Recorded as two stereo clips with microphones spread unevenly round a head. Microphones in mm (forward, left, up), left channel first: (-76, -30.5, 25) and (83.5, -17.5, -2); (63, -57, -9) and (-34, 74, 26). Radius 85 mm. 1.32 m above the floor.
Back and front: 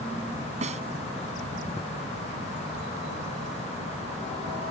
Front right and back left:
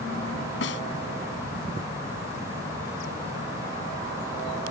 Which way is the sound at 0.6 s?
45° right.